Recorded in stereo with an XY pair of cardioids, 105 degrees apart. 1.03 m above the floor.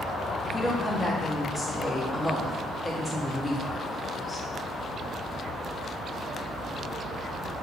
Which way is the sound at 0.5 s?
15° left.